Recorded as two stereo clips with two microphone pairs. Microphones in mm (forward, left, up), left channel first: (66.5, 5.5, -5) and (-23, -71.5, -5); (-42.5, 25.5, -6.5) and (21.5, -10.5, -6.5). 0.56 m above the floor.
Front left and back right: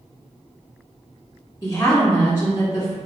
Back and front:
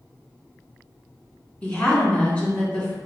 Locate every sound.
1.6 s a woman speaking: 90° left, 1.6 m